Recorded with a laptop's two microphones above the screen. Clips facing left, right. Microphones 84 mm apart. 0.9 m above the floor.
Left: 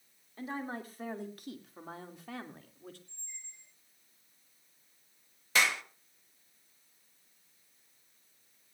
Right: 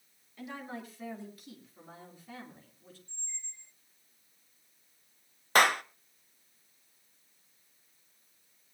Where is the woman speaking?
35° left (ahead or behind), 2.5 m; by 3.0 s 70° left (ahead or behind), 2.5 m.